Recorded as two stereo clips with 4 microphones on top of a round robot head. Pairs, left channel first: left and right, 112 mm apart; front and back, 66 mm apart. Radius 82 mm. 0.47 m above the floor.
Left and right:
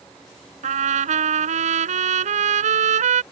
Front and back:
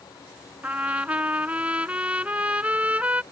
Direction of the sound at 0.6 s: 100° right.